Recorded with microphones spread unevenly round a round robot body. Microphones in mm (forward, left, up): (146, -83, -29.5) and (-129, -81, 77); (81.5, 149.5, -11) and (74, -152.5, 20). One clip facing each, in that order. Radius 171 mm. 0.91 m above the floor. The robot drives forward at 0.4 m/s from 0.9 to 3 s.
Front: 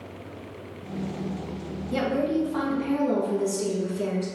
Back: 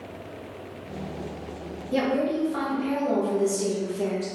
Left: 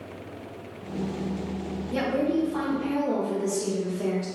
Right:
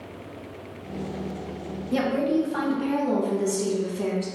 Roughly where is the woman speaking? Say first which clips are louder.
Back 1 dB, right 2 dB; ahead right.